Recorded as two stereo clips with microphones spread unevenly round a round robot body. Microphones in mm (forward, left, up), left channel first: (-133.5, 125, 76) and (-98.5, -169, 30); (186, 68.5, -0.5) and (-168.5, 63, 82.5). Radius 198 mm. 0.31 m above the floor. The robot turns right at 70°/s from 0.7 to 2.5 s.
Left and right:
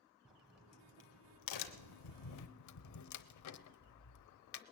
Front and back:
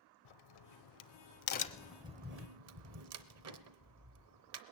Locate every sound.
0.2 s a crack: 5° left, 0.8 m; by 4.6 s 130° left, 0.8 m